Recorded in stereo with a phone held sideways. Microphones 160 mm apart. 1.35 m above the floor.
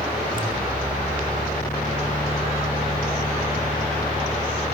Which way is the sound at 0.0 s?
65° left (ahead or behind).